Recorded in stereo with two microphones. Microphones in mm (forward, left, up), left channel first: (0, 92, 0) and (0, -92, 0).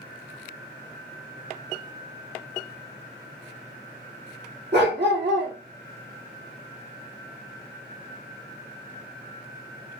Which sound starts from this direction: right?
A dog barking, at 4.7 s.